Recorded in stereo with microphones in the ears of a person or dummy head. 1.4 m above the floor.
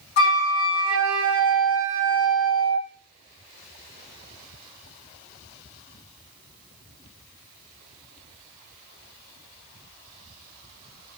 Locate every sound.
0.2 s a flute: 60° left (ahead or behind), 2.0 m